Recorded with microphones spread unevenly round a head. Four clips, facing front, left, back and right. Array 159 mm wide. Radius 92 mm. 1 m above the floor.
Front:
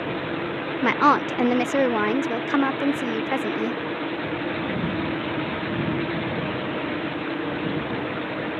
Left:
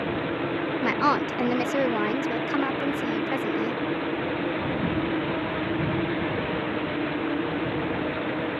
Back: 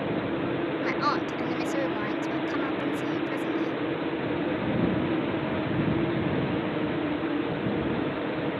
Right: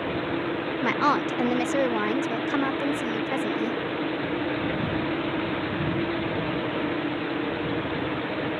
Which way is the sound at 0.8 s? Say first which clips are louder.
Right 1 dB, front 12 dB; 5° right.